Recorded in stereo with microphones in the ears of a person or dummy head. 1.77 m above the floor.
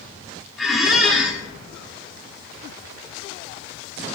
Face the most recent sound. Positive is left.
turn(degrees=-5)  # may be behind; listen again after turning